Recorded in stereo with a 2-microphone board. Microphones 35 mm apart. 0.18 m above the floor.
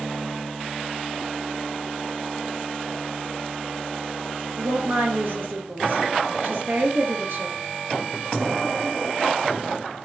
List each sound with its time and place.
4.5 s a woman speaking: 65° right (ahead or behind), 3.5 m